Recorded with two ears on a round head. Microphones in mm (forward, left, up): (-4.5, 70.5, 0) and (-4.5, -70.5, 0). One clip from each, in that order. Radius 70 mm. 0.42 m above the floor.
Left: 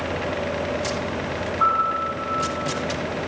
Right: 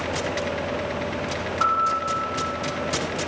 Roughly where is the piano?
Right.